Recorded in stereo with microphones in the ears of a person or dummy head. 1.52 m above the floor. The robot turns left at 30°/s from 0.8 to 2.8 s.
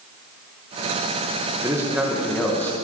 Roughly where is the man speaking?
Behind.